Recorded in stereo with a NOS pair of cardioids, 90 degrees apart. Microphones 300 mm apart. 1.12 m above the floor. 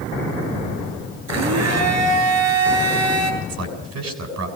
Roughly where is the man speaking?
Ahead right.